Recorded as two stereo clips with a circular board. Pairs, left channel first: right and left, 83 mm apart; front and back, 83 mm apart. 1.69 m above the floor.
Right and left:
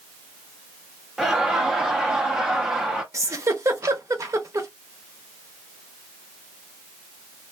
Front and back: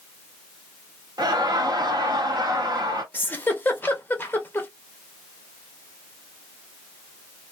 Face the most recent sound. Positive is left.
turn(degrees=60)